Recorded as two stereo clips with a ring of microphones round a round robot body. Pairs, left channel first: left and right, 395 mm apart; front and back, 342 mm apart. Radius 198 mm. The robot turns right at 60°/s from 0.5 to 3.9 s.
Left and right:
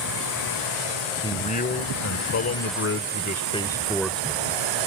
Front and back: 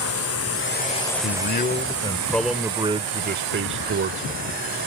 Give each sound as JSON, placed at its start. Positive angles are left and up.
{"t": 0.0, "sound": "a drone", "azimuth_deg": 45}
{"t": 1.2, "sound": "a man speaking", "azimuth_deg": 15}